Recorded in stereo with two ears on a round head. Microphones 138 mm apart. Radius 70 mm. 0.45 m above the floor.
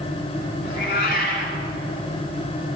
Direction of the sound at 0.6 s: 60° left (ahead or behind).